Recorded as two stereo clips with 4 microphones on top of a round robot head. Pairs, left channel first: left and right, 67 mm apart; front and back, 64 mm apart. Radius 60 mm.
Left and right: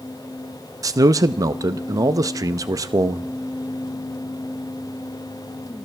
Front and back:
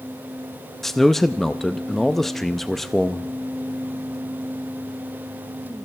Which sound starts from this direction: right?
A man speaking, at 0.8 s.